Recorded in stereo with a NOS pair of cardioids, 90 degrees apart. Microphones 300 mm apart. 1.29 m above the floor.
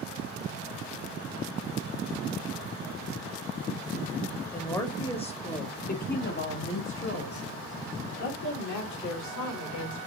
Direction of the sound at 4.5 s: 10° left.